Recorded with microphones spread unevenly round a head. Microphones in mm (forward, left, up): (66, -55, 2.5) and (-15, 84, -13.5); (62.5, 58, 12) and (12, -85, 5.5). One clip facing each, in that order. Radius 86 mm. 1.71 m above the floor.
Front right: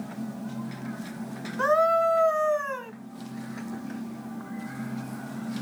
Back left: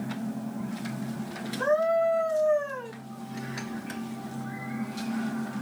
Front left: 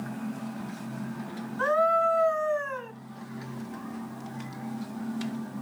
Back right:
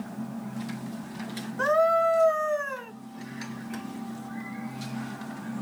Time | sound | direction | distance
1.6 | a scream | 65° right | 3 m